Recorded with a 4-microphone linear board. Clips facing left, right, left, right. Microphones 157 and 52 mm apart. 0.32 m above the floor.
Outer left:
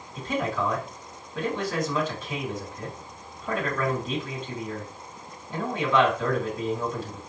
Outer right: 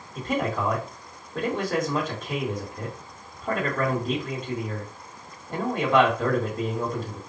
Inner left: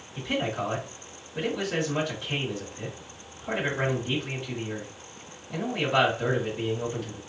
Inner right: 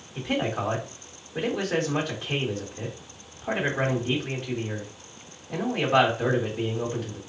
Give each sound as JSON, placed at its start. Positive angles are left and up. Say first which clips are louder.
{"t": 0.1, "sound": "a man speaking", "louder": "outer right 1 dB, inner right 2 dB", "side_deg": -55, "distance_m": 2.5}